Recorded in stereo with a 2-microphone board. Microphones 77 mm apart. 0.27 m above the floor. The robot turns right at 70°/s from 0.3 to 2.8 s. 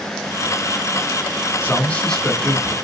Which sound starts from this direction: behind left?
A man speaking, at 1.6 s.